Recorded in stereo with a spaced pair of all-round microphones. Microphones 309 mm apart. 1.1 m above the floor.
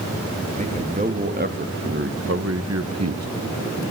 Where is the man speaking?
20° right (ahead or behind), 2.5 m; by 3.3 s 55° right (ahead or behind), 1.1 m.